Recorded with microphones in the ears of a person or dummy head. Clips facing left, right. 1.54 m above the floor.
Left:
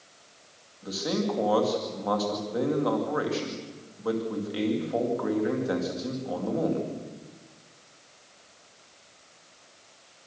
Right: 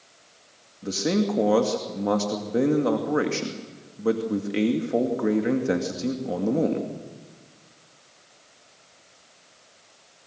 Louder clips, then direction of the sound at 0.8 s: Right 5 dB; 30° right (ahead or behind).